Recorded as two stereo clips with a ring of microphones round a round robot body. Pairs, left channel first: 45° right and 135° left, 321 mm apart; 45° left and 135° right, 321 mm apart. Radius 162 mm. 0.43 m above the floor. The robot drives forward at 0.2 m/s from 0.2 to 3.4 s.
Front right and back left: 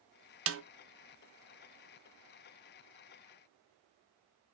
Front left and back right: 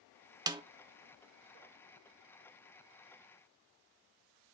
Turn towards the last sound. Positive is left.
turn(degrees=170)